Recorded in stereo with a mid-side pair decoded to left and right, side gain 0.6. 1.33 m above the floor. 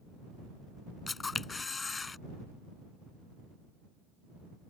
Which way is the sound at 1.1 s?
25° left.